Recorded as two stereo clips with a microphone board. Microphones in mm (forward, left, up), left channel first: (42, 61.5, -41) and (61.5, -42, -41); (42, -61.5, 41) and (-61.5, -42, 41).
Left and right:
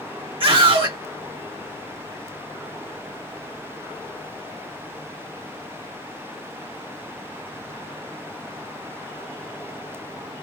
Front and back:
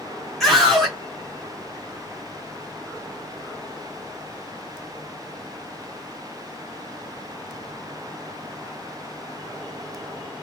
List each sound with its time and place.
0.4 s a scream: 100° right, 2 m